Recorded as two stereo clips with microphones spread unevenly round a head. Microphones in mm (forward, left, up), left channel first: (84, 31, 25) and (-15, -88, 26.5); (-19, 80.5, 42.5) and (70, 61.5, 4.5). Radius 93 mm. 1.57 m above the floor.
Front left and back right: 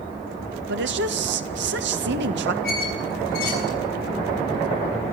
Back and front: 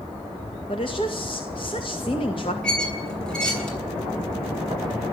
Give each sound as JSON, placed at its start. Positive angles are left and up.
{"t": 0.7, "sound": "a woman speaking", "azimuth_deg": -130, "distance_m": 2.0}
{"t": 2.6, "sound": "a squeak", "azimuth_deg": 90, "distance_m": 8.0}